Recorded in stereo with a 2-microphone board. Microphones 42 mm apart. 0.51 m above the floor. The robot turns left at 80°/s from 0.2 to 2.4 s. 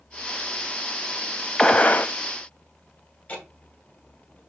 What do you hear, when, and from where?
1.6 s a gunshot: 165° left, 0.5 m; by 2.1 s 120° left, 0.5 m
3.3 s ticking: 30° left (ahead or behind), 2.5 m